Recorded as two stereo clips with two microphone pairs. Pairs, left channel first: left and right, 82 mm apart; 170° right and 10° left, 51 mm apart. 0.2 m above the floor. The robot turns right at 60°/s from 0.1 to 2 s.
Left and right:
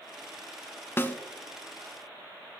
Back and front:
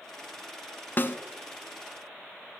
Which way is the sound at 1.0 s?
150° left.